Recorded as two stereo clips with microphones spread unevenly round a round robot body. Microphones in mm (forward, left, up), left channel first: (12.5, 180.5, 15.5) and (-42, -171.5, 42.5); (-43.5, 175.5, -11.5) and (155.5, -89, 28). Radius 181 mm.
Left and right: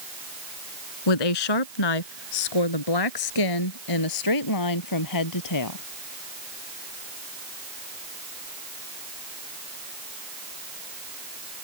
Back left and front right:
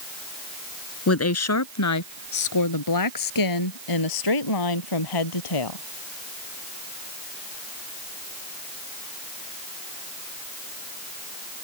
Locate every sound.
1.1 s a woman speaking: 80° left; by 5.8 s 120° left